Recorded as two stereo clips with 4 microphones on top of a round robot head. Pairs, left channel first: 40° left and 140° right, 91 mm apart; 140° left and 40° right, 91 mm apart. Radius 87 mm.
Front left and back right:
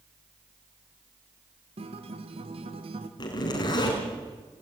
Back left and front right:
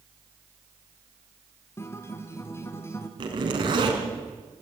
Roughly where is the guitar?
Behind.